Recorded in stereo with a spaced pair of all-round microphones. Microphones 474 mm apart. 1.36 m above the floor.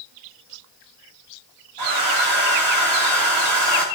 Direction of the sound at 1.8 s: 55° right (ahead or behind).